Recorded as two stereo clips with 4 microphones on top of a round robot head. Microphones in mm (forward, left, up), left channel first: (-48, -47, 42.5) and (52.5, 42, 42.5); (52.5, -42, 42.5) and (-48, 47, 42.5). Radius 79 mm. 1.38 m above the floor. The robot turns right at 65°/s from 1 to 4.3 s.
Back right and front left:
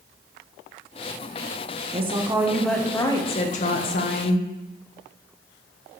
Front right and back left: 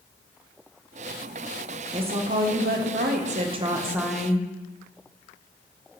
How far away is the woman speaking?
About 1.5 m.